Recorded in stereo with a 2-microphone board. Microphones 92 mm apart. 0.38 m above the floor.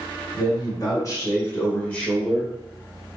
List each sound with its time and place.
0.3 s a man speaking: 50° left (ahead or behind), 1.6 m; by 2.5 s centre (ahead or behind), 1.4 m